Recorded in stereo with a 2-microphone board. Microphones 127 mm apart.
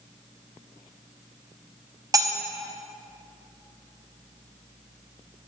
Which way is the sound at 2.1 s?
25° right (ahead or behind).